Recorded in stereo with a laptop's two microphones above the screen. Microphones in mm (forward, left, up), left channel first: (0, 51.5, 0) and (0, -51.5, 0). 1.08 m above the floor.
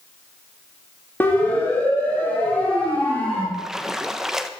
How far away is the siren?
About 2.5 m.